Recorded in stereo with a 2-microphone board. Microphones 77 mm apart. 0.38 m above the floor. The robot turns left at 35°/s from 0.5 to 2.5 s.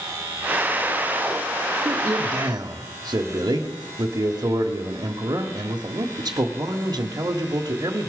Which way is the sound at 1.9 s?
35° right (ahead or behind).